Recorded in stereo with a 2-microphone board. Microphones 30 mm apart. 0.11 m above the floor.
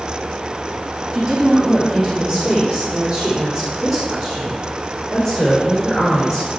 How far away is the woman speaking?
About 3.5 m.